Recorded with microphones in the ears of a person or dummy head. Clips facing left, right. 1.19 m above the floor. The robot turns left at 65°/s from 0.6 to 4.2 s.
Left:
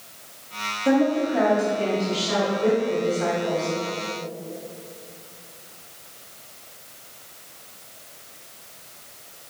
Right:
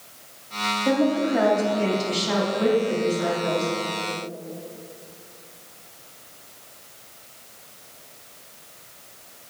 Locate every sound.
0.8 s a woman speaking: 10° left, 2.5 m; by 3.7 s 175° right, 2.5 m